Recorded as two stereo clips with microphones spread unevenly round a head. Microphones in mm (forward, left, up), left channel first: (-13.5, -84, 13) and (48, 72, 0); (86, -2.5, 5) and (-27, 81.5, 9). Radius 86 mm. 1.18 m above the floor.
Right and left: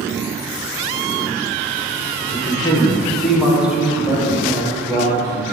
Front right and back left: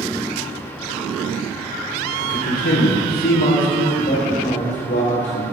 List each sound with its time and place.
2.2 s a man speaking: 55° right, 0.9 m; by 5.4 s straight ahead, 2.5 m